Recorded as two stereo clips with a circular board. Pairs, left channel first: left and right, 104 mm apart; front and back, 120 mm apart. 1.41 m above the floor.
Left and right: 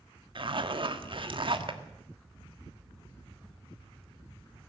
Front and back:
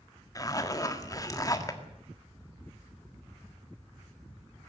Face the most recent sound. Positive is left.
turn(degrees=-60)